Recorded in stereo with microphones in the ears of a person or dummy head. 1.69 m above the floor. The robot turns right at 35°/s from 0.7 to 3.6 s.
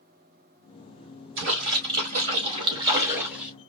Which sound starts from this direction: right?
A splash, at 1.4 s.